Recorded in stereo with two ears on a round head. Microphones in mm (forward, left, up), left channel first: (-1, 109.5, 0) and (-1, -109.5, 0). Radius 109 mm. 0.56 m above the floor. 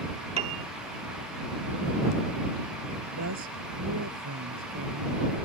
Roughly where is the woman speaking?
Right.